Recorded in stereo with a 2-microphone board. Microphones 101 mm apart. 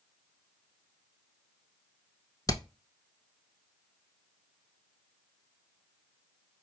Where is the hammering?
35° left (ahead or behind), 0.6 m.